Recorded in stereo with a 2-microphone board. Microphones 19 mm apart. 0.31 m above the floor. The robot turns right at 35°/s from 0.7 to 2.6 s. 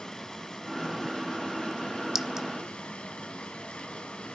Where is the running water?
35° left, 2.5 m; by 4.3 s 105° left, 2.5 m.